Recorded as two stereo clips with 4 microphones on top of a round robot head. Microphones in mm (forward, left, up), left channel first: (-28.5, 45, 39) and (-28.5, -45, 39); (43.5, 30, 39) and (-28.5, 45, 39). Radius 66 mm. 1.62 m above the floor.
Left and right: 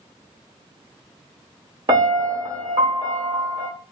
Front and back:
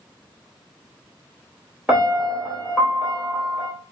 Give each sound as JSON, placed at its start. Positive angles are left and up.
{"t": 1.9, "sound": "a piano", "azimuth_deg": -110, "distance_m": 1.3}